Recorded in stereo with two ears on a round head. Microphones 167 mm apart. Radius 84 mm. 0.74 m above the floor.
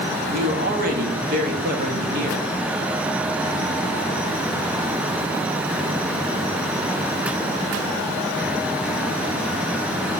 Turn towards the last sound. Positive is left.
turn(degrees=-45)  # may be behind; listen again after turning